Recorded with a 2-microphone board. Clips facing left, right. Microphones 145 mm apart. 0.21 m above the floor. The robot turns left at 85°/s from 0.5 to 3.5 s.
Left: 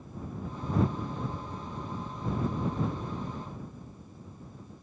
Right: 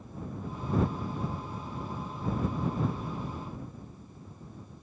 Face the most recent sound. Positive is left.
No sound to turn to.